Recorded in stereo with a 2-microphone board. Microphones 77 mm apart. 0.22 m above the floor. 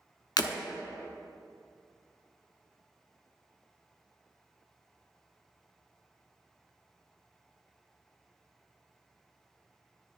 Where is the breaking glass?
65° left (ahead or behind), 0.6 m.